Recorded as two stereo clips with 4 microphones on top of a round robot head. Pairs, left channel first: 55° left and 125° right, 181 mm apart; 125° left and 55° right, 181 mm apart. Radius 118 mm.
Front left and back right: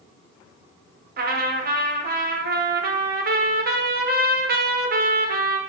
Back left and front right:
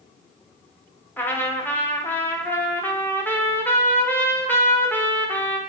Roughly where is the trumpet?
Behind right.